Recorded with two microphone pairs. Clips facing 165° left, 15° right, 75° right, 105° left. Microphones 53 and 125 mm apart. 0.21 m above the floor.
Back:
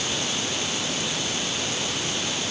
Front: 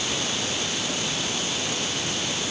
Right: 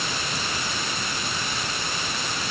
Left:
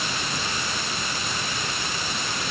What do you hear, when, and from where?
Only background noise.